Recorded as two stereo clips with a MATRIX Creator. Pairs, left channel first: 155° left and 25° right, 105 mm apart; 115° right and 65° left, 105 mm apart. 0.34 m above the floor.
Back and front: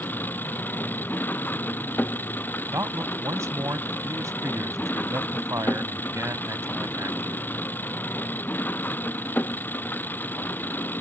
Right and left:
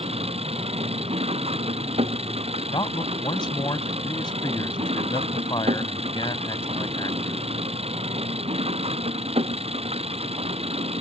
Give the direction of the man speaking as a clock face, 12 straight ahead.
3 o'clock.